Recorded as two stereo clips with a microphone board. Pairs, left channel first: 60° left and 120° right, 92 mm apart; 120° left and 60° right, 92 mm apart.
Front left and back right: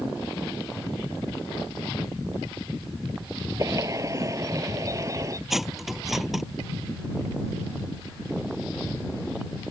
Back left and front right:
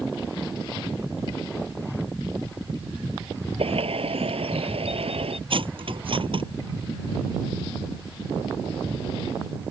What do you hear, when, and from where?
3.6 s a bird: 65° right
5.5 s cutlery clinking: 30° right